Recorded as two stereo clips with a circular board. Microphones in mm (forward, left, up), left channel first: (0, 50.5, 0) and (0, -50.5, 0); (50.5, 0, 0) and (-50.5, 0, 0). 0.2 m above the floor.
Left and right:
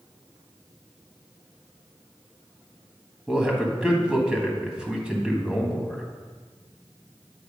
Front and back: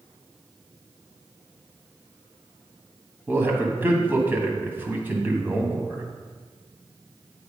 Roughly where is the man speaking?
Behind right.